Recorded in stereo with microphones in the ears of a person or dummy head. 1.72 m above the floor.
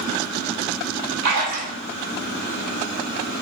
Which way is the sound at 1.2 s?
55° right (ahead or behind).